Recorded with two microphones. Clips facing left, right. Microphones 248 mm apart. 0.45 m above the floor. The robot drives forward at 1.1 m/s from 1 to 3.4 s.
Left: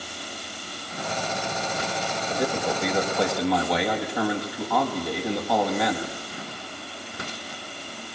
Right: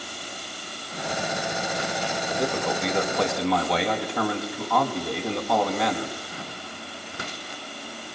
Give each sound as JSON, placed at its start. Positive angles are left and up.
{"t": 2.3, "sound": "a man speaking", "side_deg": 0, "distance_m": 2.5}